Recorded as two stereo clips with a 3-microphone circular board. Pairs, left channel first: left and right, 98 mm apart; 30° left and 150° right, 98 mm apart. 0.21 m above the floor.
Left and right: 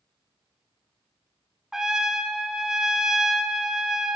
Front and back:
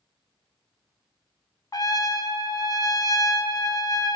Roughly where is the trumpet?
Ahead.